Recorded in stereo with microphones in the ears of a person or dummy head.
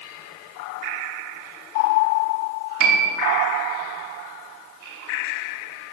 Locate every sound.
2.8 s a piano: 80° right, 2.5 m